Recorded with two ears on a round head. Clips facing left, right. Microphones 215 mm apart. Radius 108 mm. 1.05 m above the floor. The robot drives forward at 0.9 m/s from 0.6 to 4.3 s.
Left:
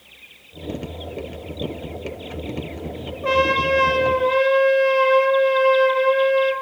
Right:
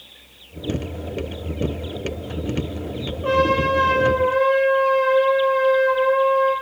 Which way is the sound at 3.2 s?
35° left (ahead or behind).